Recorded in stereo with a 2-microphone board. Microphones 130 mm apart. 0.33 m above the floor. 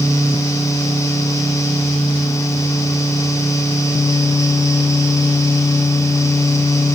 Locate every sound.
Only background noise.